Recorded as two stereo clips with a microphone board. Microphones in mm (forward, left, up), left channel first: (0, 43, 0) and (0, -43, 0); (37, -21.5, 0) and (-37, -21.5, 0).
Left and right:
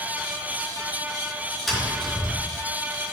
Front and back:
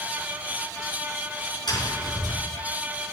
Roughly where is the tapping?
Ahead.